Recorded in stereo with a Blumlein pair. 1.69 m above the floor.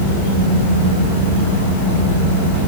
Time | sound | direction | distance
0.0 | a fan | 65° left | 3 m